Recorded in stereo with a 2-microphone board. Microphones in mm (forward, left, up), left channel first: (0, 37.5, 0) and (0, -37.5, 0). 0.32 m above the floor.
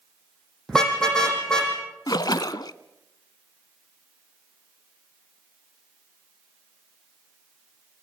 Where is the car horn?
10° left (ahead or behind), 6 m.